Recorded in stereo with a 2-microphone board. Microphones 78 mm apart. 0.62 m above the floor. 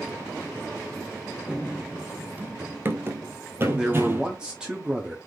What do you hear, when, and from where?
1.5 s running footsteps: 5° right (ahead or behind), 0.7 m; by 4.3 s 30° right (ahead or behind), 1.4 m
3.8 s a man speaking: 10° right (ahead or behind), 0.8 m